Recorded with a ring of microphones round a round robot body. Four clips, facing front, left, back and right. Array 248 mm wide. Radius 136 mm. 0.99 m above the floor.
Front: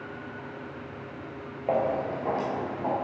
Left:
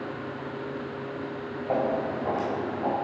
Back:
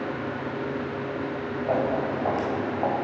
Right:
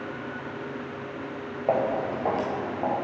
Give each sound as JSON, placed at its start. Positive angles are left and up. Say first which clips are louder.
{"t": 1.7, "sound": "footsteps", "louder": "right 2 dB, back 1 dB", "azimuth_deg": -80, "distance_m": 1.3}